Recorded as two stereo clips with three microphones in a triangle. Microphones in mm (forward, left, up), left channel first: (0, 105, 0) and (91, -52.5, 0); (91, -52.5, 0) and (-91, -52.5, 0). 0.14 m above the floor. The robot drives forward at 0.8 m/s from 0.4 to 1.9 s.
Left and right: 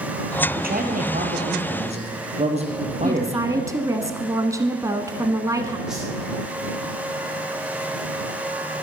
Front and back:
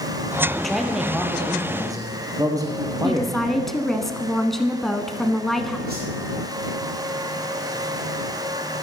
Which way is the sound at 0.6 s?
85° right.